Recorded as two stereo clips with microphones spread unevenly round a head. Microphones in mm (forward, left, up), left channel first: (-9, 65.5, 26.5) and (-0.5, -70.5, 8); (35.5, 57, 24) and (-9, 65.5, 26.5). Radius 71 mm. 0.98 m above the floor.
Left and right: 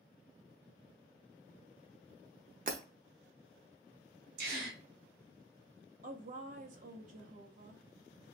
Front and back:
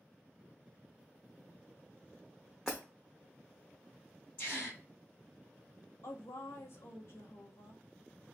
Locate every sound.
2.7 s breaking glass: 110° right, 0.7 m
4.4 s a gasp: 90° right, 2 m
6.0 s a woman speaking: 55° right, 1.1 m